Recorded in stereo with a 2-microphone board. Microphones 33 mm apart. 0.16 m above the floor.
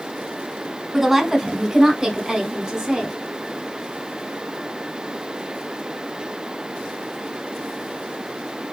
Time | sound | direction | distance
0.9 | a woman speaking | centre (ahead or behind) | 1.3 m